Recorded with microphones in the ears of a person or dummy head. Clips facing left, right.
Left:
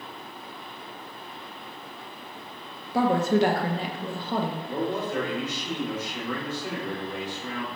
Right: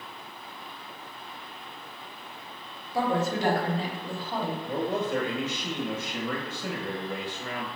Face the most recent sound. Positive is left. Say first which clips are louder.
# even
turn(degrees=-50)  # may be behind; listen again after turning